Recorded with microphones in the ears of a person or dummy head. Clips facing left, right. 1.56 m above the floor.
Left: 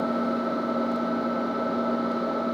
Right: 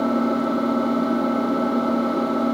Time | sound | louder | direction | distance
0.0 | an engine running | right 6 dB | 55° right (ahead or behind) | 3 m